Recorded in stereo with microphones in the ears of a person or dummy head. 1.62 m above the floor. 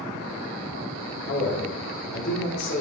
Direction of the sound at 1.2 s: 70° left (ahead or behind).